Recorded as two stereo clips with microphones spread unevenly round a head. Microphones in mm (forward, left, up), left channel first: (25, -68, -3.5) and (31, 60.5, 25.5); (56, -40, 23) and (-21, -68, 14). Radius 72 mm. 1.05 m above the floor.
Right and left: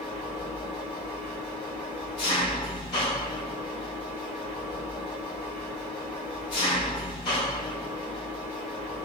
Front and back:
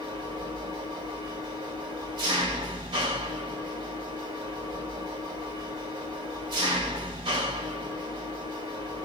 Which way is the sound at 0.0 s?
150° right.